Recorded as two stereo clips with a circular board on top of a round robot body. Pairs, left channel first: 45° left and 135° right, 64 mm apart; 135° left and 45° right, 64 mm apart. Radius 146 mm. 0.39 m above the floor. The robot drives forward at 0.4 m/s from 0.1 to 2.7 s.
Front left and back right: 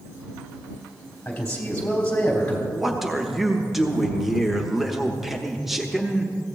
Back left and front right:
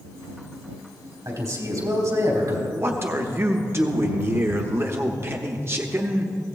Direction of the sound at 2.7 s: 50° right.